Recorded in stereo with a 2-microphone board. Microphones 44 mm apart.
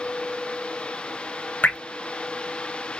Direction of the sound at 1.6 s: 45° left (ahead or behind).